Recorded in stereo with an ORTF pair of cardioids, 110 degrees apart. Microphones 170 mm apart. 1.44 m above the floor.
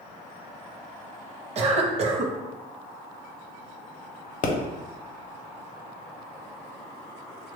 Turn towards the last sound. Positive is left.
turn(degrees=55)